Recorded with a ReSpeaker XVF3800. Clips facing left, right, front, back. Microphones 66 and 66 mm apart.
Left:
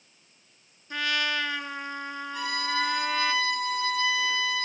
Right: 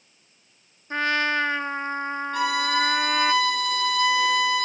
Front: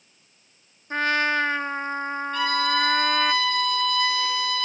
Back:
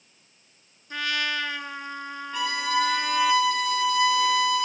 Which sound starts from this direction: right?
A violin, at 2.3 s.